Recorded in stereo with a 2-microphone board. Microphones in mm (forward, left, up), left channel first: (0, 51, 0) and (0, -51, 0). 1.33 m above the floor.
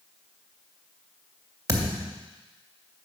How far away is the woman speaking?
I don't hear a woman speaking.